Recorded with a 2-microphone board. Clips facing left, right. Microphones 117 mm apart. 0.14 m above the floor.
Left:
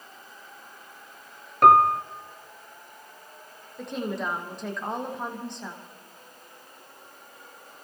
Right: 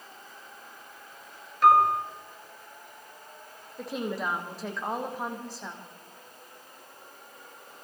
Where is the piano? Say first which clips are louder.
Left 3 dB; 55° left (ahead or behind), 2.5 m.